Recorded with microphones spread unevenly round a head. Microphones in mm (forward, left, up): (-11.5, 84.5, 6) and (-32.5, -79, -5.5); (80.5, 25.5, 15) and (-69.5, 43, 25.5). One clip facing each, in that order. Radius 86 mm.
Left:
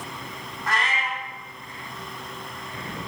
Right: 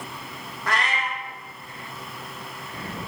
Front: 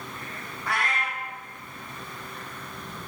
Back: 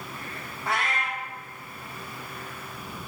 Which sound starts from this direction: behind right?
A cat meowing, at 0.7 s.